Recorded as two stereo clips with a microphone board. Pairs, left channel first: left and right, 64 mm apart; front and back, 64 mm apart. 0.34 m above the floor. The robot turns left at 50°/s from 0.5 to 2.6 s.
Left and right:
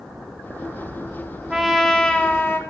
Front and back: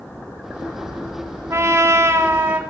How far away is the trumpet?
About 0.8 m.